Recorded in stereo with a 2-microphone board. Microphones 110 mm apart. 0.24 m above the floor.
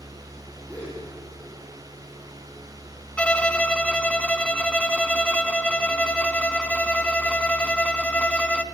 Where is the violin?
10° left (ahead or behind), 0.6 m.